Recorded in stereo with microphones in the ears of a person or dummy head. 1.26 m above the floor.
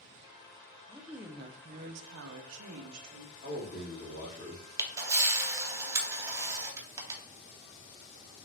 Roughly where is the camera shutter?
Centre.